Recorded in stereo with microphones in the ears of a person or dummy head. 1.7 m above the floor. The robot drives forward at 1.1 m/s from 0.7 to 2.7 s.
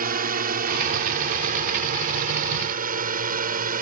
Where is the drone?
50° right (ahead or behind); by 3.8 s 45° right (ahead or behind).